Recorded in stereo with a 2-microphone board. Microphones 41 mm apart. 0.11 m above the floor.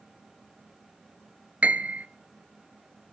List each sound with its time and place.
1.6 s a piano: 35° right (ahead or behind), 0.6 m